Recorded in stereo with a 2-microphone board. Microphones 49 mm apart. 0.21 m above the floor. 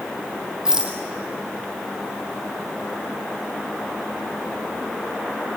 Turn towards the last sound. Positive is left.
turn(degrees=-15)  # may be behind; listen again after turning